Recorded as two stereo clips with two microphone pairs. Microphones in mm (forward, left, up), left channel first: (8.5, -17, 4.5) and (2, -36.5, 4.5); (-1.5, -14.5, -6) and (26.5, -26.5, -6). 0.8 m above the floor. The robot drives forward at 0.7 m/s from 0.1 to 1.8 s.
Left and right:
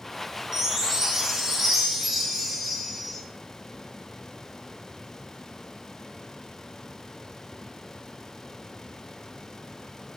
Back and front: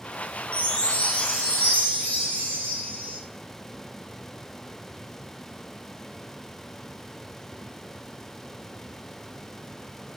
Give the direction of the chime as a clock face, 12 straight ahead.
6 o'clock.